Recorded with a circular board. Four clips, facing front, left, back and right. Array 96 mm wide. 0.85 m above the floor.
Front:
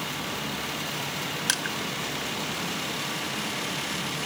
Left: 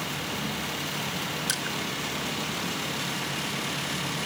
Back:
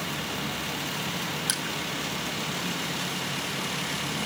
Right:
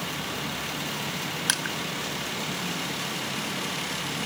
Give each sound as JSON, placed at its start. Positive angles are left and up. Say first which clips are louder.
{"t": 1.5, "sound": "crushing", "louder": "right 2 dB, front 2 dB", "azimuth_deg": -60, "distance_m": 1.1}